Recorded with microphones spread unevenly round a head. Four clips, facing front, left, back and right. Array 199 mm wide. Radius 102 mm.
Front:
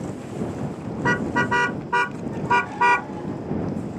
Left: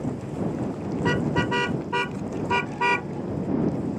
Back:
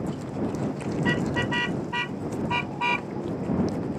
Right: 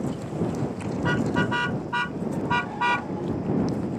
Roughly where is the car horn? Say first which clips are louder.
Even, front 5 dB; ahead left.